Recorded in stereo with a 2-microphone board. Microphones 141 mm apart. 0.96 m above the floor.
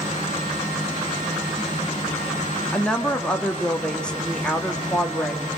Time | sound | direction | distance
2.7 | a woman speaking | 5° left (ahead or behind) | 1.4 m